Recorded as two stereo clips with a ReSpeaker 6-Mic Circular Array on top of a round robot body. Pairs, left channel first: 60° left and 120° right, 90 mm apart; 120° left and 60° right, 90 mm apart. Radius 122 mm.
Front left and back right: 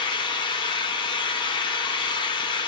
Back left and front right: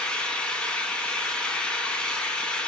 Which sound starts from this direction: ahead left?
An engine running, at 0.0 s.